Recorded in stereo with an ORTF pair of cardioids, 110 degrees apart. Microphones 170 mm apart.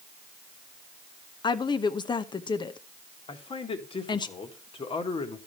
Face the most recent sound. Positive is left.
turn(degrees=30)